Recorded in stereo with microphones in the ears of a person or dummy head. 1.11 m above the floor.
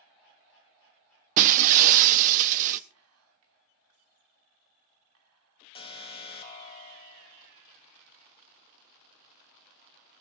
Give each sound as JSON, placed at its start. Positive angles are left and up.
{"t": 1.4, "sound": "breaking glass", "side_deg": -45, "distance_m": 0.8}
{"t": 2.9, "sound": "whispering", "side_deg": -85, "distance_m": 3.0}
{"t": 5.8, "sound": "an alarm", "side_deg": 30, "distance_m": 1.8}